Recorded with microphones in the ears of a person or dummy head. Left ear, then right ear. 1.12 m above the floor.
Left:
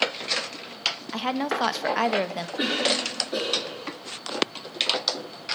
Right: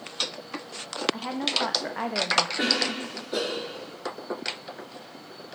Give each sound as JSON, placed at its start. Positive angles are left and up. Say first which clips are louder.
{"t": 1.1, "sound": "a woman speaking", "louder": "left 1 dB", "side_deg": 85, "distance_m": 0.9}
{"t": 2.6, "sound": "a cough", "louder": "left 1 dB", "side_deg": -10, "distance_m": 2.5}